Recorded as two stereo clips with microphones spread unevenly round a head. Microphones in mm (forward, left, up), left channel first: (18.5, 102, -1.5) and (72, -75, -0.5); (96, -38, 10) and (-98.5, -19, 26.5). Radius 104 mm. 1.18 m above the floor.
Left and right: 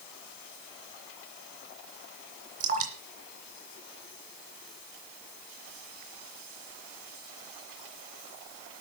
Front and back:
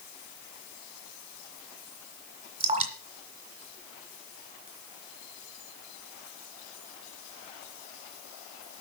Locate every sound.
2.6 s dripping: 125° right, 2.5 m